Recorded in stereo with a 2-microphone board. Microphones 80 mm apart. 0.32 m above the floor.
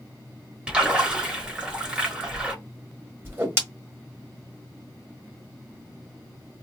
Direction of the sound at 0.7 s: 15° right (ahead or behind).